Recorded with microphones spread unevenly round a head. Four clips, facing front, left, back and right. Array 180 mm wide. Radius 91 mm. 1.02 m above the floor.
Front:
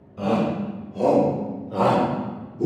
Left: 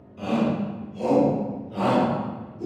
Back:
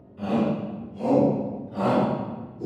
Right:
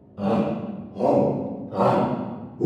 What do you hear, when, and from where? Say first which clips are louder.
0.2 s a shout: right 1 dB, front 2 dB; 30° right, 4.5 m; by 2.7 s 45° right, 2.5 m